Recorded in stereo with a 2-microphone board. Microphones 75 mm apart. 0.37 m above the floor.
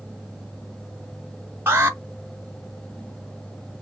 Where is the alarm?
25° right (ahead or behind), 1.2 m.